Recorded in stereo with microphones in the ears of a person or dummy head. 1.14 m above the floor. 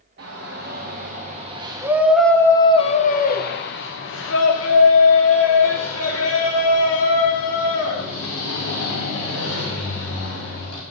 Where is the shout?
55° right (ahead or behind), 1.4 m; by 10.8 s 85° left, 5 m.